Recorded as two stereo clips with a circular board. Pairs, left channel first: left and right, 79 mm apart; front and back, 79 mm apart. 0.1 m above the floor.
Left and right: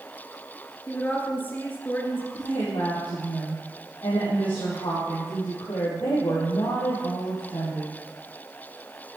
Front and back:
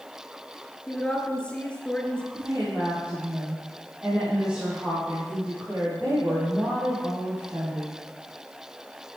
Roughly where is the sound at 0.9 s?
Ahead left.